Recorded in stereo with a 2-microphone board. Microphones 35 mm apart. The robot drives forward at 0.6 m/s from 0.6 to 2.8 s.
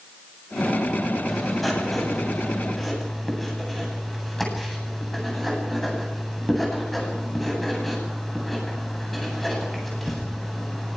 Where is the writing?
5° left (ahead or behind), 8.5 m.